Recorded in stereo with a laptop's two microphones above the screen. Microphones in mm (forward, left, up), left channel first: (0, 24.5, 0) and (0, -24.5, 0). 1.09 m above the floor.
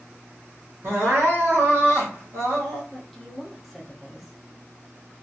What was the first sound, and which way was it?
Crying, 70° right (ahead or behind).